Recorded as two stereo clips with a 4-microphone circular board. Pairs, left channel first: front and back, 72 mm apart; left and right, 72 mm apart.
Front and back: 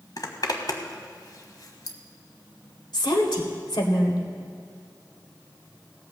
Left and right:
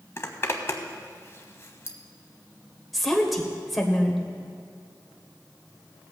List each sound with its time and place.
0.2 s a zipper: 35° left, 1.2 m
2.9 s a woman speaking: straight ahead, 1.9 m